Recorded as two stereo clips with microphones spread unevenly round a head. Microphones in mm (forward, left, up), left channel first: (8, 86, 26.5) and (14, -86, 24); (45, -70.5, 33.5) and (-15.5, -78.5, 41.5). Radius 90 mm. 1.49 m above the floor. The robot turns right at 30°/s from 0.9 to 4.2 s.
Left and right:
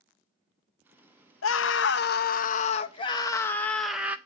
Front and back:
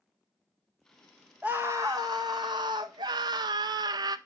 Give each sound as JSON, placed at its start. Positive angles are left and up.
{"t": 1.4, "sound": "a scream", "azimuth_deg": 105, "distance_m": 0.6}